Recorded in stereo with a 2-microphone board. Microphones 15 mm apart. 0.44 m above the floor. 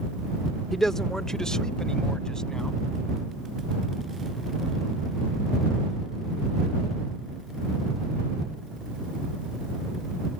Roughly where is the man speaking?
Centre.